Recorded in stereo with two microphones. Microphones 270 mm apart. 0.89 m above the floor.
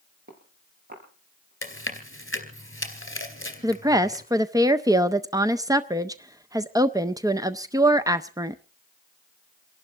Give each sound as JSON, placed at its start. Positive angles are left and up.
{"t": 0.3, "sound": "footsteps", "side_deg": -35, "distance_m": 6.0}
{"t": 1.6, "sound": "chewing", "side_deg": 45, "distance_m": 2.5}
{"t": 3.6, "sound": "a woman speaking", "side_deg": -15, "distance_m": 0.5}